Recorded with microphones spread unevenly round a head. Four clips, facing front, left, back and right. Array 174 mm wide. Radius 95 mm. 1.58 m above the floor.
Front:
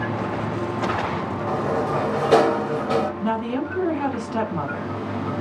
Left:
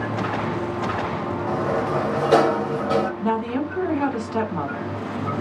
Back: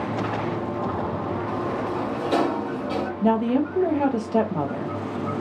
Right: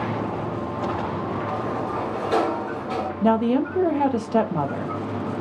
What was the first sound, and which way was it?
A sliding door, 35° left.